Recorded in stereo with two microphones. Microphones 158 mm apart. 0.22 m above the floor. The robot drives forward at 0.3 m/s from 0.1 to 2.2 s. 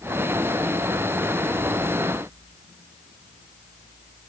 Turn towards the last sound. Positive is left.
No sound to turn to.